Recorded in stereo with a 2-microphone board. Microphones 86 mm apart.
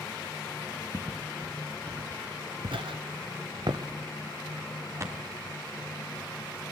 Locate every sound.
0.9 s footsteps: 30° right (ahead or behind), 3 m